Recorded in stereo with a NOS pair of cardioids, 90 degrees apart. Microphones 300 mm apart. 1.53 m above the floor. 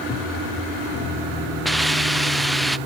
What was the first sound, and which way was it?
A hiss, straight ahead.